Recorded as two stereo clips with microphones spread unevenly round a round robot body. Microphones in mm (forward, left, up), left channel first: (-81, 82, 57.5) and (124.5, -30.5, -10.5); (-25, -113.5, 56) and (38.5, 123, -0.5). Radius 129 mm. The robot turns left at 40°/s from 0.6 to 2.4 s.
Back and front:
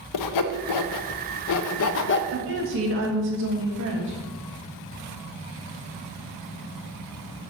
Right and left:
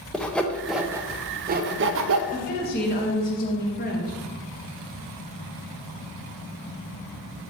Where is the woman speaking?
45° right, 1.7 m; by 4.2 s 50° right, 1.7 m.